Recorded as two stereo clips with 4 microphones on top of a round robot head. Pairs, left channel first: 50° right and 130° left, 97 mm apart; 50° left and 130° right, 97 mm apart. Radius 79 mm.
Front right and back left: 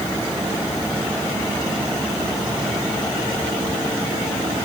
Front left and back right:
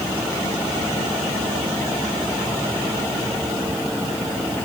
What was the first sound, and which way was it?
Only background noise.